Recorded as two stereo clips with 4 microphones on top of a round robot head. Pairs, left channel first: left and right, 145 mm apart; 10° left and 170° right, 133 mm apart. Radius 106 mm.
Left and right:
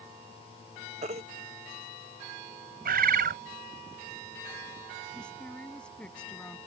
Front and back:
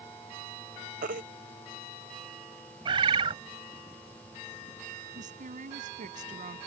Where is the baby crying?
145° right.